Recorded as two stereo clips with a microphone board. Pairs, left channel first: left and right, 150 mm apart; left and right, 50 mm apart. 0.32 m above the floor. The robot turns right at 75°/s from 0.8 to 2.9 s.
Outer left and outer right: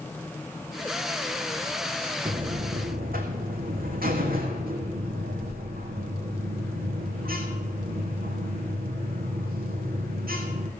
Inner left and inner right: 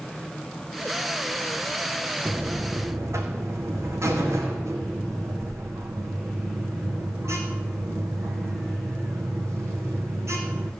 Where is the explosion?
No explosion in this recording.